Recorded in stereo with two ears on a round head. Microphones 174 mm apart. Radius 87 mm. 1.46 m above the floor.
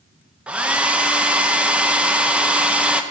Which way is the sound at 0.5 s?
5° right (ahead or behind).